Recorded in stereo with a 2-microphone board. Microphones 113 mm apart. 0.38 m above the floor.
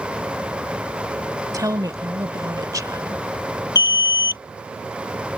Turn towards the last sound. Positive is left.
turn(degrees=40)  # may be behind; listen again after turning